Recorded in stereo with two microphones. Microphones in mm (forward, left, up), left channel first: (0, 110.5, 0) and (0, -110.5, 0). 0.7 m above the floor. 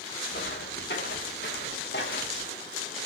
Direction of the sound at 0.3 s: 50° left (ahead or behind).